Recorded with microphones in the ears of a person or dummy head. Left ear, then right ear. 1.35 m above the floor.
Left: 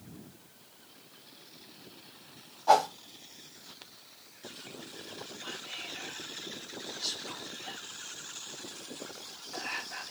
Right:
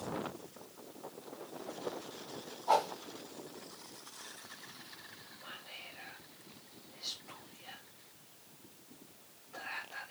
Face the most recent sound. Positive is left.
turn(degrees=80)